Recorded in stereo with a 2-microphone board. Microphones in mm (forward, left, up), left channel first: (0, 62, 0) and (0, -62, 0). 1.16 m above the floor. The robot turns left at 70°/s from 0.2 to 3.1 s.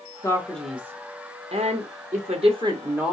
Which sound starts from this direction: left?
A man speaking, at 0.2 s.